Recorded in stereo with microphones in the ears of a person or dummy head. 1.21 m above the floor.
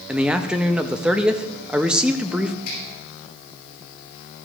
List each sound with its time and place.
0.1 s a man speaking: 5° right (ahead or behind), 0.5 m
2.6 s a finger snap: 55° left (ahead or behind), 6.5 m